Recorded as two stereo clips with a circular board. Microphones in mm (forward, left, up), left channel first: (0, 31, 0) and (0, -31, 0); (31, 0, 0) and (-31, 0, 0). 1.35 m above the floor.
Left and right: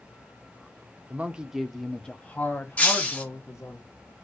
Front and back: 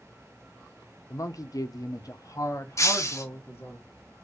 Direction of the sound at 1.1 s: 25° right.